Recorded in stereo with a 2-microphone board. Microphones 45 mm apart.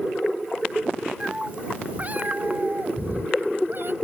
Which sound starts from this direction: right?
A cat meowing, at 1.2 s.